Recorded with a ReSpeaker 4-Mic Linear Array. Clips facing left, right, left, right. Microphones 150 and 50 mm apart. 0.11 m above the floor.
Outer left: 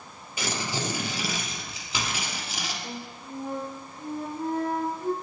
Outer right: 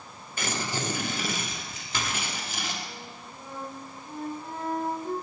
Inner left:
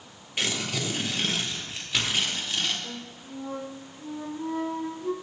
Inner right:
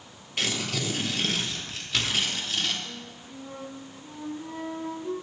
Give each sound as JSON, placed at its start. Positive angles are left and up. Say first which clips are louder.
{"t": 0.4, "sound": "tearing paper", "louder": "outer left 1 dB, even", "side_deg": 10, "distance_m": 2.5}
{"t": 2.8, "sound": "a flute", "louder": "outer left 5 dB, inner left 2 dB", "side_deg": 65, "distance_m": 1.7}